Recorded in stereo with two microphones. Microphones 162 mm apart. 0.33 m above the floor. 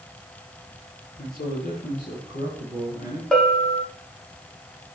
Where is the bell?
5° left (ahead or behind), 1.4 m.